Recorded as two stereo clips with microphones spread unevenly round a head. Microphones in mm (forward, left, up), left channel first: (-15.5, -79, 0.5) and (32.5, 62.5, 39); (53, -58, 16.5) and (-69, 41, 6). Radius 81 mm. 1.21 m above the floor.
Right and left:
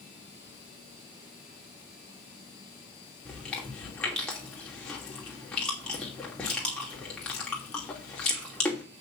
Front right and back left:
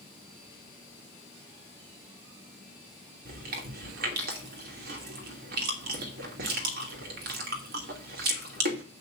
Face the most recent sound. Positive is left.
turn(degrees=165)